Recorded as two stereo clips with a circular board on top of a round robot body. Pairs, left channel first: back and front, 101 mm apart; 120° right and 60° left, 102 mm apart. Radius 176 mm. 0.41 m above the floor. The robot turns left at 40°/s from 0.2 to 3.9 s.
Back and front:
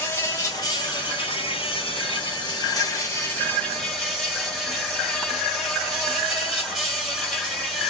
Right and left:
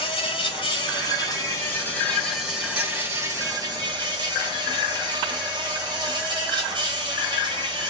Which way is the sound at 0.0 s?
120° right.